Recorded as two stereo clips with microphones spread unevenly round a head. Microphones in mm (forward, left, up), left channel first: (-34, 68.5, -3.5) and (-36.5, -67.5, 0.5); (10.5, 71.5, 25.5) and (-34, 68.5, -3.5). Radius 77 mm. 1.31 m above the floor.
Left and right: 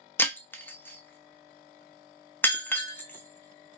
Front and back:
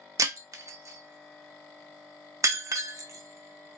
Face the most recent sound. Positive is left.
turn(degrees=165)